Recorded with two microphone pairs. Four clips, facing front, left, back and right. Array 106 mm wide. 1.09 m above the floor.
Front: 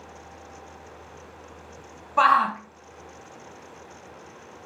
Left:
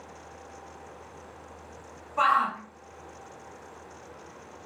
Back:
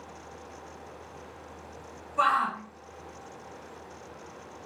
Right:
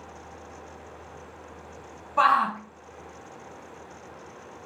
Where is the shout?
10° right, 0.8 m.